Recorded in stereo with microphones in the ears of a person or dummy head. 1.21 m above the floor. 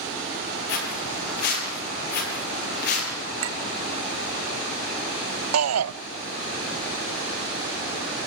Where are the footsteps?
60° left (ahead or behind), 8 m; by 3.1 s 50° left (ahead or behind), 8 m.